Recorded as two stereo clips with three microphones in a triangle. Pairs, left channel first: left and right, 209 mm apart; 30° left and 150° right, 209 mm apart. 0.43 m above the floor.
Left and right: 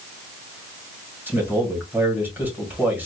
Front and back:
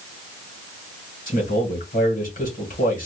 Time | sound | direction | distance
1.3 | a man speaking | 10° right | 1.9 m